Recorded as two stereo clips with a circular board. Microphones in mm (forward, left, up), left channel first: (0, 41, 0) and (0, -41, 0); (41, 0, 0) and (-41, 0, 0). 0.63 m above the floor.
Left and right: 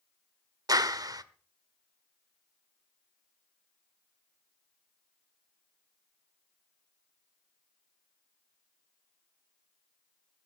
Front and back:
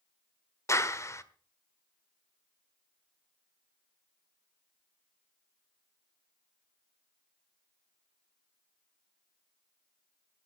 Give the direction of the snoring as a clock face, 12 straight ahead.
I don't hear snoring.